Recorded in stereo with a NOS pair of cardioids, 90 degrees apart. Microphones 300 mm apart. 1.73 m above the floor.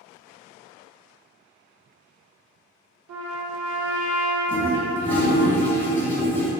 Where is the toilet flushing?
5° left, 1.0 m.